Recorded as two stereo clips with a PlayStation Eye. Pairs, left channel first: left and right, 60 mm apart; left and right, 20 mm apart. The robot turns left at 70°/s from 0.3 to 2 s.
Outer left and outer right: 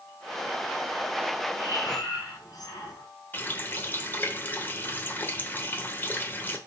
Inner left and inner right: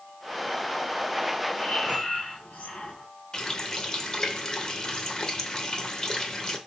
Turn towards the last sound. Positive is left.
turn(degrees=30)  # may be behind; listen again after turning